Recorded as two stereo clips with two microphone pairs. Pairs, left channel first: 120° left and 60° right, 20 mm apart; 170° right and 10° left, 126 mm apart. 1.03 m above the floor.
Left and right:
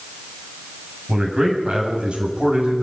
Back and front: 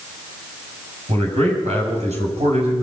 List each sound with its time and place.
1.1 s a man speaking: 15° right, 6.5 m